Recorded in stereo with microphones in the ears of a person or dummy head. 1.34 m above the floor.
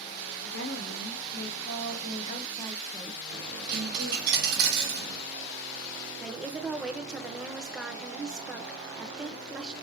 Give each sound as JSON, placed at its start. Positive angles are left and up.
{"t": 0.4, "sound": "a woman speaking", "side_deg": 60, "distance_m": 1.4}
{"t": 3.3, "sound": "a dropped coin", "side_deg": -55, "distance_m": 1.6}
{"t": 6.2, "sound": "a woman speaking", "side_deg": -5, "distance_m": 0.6}